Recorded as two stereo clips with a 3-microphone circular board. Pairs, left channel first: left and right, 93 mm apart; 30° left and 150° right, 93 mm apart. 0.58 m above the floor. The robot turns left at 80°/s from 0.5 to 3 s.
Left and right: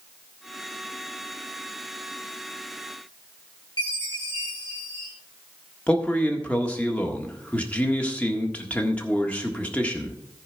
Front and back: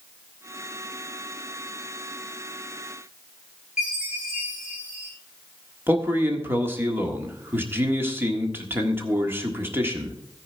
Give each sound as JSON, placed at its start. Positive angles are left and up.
{"t": 3.8, "sound": "a chime", "azimuth_deg": 130, "distance_m": 7.0}
{"t": 5.9, "sound": "a man speaking", "azimuth_deg": 160, "distance_m": 1.5}